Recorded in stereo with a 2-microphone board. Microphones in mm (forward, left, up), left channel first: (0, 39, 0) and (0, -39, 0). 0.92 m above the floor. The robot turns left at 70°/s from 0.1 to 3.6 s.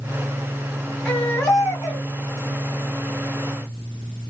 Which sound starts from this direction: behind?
A baby crying, at 1.1 s.